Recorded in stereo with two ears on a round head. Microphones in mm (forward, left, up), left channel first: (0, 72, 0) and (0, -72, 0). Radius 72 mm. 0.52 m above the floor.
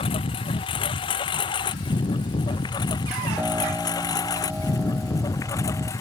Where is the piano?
10° right (ahead or behind).